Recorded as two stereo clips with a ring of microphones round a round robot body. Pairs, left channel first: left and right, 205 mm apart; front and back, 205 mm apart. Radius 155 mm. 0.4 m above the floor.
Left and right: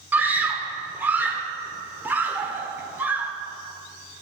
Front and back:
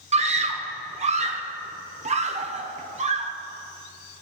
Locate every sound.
0.1 s a scream: 165° right, 1.3 m